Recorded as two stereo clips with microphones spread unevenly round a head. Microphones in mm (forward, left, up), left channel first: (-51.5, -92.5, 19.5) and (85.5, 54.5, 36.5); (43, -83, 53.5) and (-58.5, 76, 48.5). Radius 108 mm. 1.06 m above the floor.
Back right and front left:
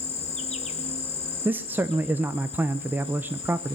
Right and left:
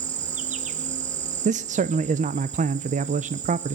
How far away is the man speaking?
About 0.6 m.